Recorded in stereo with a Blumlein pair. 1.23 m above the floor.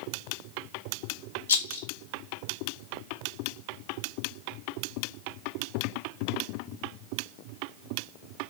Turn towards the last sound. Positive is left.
turn(degrees=65)